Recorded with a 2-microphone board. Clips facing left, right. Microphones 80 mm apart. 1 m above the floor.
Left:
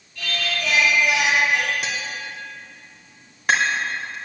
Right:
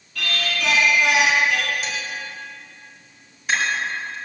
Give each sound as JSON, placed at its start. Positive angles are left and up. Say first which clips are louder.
{"t": 0.1, "sound": "singing", "louder": "right 1 dB", "side_deg": -75, "distance_m": 3.5}
{"t": 1.8, "sound": "tapping", "louder": "even", "side_deg": 55, "distance_m": 2.5}